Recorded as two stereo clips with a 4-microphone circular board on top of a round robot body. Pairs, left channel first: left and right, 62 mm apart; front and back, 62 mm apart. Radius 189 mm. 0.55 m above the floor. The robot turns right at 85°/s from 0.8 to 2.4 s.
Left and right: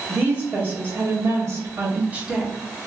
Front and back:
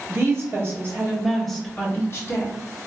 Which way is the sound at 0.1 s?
140° right.